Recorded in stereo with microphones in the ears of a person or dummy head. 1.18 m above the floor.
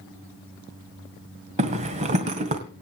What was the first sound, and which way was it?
A zipper, 35° right (ahead or behind).